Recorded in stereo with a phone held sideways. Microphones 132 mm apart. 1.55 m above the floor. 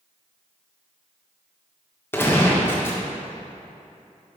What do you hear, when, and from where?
2.1 s a gunshot: 15° left (ahead or behind), 1.3 m